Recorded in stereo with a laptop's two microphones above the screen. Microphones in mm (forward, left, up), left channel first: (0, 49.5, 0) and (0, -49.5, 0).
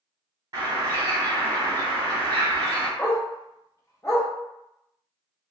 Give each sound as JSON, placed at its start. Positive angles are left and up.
{"t": 0.5, "sound": "a bird", "side_deg": -40, "distance_m": 1.5}
{"t": 3.0, "sound": "a dog barking", "side_deg": 35, "distance_m": 0.7}